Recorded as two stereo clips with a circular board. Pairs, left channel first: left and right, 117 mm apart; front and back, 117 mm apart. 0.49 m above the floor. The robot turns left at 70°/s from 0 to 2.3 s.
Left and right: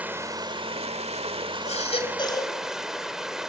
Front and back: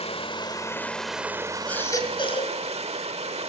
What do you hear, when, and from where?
0.0 s running water: 15° right, 1.3 m; by 3.5 s 175° right, 1.3 m
1.7 s a baby crying: 80° left, 2.5 m; by 2.6 s 35° left, 2.5 m